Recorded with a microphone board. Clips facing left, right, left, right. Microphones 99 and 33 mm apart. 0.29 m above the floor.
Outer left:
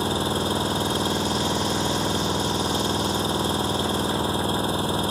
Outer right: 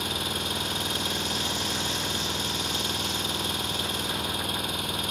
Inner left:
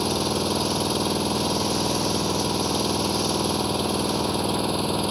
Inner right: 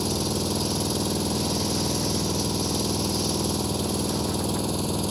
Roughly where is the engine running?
Left.